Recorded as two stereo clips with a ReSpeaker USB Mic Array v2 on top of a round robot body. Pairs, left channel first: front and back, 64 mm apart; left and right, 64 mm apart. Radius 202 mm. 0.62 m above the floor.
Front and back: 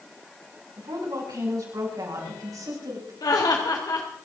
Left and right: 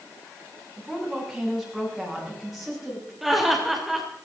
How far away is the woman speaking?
About 6 m.